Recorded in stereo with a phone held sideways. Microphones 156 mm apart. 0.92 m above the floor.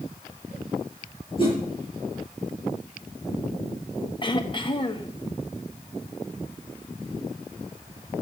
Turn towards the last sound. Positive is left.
turn(degrees=30)  # may be behind; listen again after turning